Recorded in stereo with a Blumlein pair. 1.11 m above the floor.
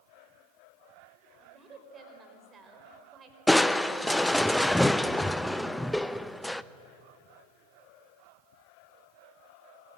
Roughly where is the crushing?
Ahead.